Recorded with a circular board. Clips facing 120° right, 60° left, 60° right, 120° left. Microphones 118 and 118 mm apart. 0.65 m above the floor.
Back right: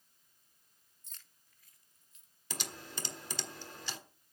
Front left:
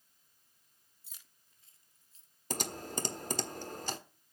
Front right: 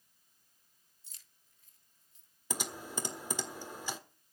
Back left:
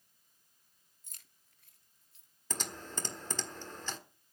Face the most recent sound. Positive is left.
turn(degrees=20)